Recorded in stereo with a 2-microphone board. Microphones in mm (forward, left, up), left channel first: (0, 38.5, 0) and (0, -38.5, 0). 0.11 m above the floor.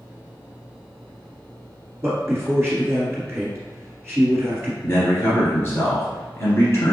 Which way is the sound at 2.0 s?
30° right (ahead or behind).